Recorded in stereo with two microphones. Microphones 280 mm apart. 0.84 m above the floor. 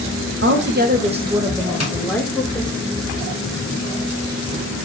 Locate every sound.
0.4 s a woman speaking: 45° right (ahead or behind), 0.9 m; by 2.8 s 20° left (ahead or behind), 1.6 m
1.8 s tapping: 60° left (ahead or behind), 1.5 m